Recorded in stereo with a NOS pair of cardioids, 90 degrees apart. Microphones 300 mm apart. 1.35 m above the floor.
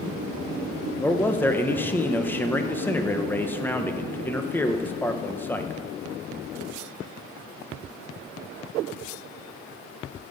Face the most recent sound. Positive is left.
turn(degrees=5)